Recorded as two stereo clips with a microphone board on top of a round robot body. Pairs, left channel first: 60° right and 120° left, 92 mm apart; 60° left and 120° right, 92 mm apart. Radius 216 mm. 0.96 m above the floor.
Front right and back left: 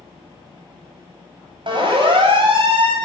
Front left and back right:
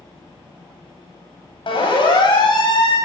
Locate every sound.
1.7 s a siren: 90° left, 8 m; by 3.0 s 100° left, 7.5 m